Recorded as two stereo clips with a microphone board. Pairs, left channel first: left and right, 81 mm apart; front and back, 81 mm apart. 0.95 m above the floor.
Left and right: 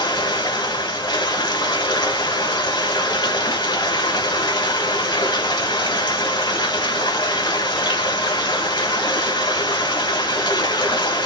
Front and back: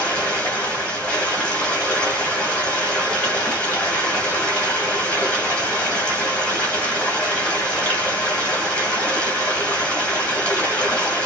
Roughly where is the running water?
Left.